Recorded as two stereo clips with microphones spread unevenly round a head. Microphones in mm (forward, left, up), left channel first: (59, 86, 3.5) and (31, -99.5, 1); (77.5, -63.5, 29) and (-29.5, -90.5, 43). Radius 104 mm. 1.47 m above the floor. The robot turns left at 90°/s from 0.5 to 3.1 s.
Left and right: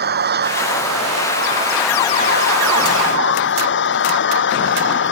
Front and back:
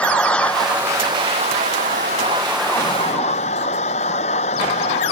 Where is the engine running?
65° right; by 5.1 s 60° left.